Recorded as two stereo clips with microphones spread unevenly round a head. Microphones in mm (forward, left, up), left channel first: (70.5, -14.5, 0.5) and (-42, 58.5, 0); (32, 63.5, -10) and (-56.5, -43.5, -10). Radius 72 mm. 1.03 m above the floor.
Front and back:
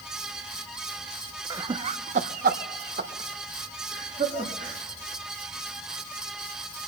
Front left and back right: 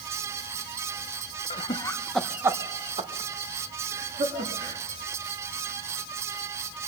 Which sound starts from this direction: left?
Laughter, at 1.5 s.